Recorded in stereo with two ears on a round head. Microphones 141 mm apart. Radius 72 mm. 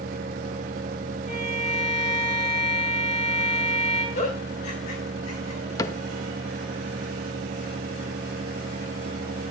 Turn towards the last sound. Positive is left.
turn(degrees=20)  # may be behind; listen again after turning